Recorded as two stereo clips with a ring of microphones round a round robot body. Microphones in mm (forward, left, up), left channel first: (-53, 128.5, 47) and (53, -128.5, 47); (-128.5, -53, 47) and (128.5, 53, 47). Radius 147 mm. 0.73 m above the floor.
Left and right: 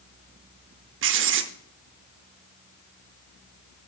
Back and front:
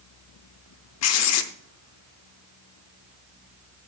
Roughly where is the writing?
Behind right.